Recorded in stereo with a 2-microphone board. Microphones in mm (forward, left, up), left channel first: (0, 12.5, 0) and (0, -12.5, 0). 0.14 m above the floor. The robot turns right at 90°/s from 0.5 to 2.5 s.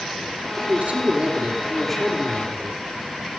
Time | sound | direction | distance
0.6 | a man speaking | 110° right | 4.5 m